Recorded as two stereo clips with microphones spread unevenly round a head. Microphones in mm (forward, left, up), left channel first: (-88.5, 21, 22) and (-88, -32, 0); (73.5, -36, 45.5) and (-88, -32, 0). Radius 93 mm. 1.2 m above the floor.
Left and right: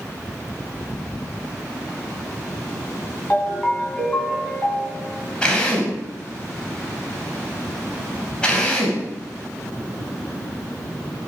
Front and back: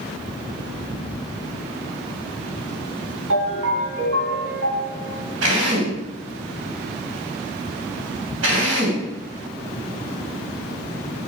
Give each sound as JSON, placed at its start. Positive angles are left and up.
{"t": 3.3, "sound": "a ringtone", "azimuth_deg": 155, "distance_m": 3.5}
{"t": 5.4, "sound": "a drill", "azimuth_deg": 155, "distance_m": 3.0}